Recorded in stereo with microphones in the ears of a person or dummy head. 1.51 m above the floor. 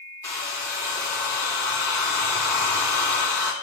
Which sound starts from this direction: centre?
A hair dryer, at 0.2 s.